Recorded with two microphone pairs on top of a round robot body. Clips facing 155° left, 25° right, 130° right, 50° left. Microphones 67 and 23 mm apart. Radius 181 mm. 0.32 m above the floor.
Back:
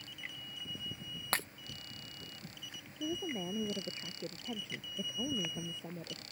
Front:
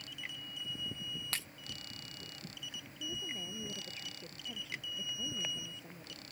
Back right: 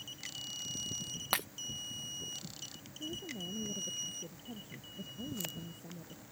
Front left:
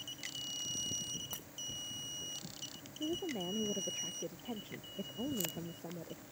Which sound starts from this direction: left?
A woman speaking, at 3.0 s.